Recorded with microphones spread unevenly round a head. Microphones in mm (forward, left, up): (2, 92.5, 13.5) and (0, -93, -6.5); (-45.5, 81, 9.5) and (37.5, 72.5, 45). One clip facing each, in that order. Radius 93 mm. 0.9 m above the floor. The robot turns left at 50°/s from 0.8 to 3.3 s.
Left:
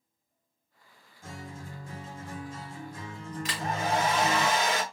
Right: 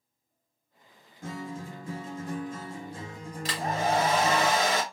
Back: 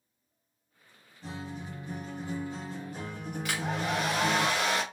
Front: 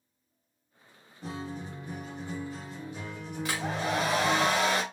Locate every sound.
1.2 s a guitar: 60° right, 0.7 m; by 4.5 s 165° right, 0.7 m
3.5 s a hair dryer: 35° right, 0.9 m